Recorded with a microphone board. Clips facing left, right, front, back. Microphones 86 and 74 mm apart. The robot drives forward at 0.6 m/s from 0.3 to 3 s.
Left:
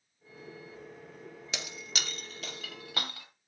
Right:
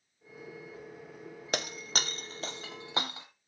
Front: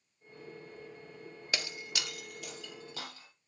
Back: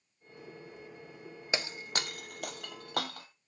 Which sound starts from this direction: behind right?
Breaking glass, at 1.5 s.